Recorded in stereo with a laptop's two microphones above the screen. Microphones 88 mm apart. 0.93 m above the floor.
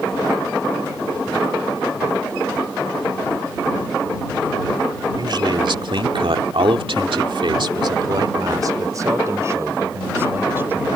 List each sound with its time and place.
5.2 s a man speaking: 55° right (ahead or behind); by 10.9 s 20° right (ahead or behind)